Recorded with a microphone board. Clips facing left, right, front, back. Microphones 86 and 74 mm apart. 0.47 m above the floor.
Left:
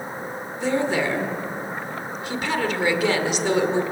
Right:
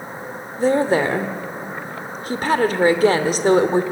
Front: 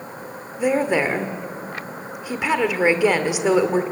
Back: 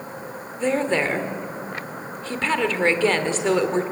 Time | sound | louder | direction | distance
0.6 | a woman speaking | right 6 dB, front 2 dB | 75° right | 1.6 m